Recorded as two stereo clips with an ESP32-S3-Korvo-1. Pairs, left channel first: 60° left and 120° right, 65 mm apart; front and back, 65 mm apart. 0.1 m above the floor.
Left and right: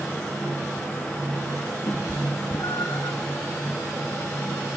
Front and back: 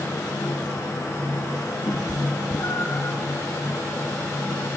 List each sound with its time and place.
1.9 s a cat meowing: 30° left, 2.5 m; by 3.2 s 55° left, 2 m